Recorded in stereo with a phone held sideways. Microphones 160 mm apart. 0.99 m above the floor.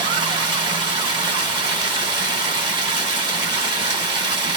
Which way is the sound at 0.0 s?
30° right (ahead or behind).